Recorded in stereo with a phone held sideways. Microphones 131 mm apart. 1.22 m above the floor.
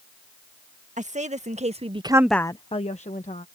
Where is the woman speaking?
75° right (ahead or behind); by 3.5 s 70° left (ahead or behind).